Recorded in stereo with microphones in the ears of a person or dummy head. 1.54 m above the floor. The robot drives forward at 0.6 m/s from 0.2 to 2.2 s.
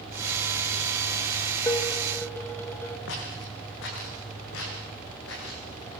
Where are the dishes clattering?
15° left (ahead or behind), 1.5 m.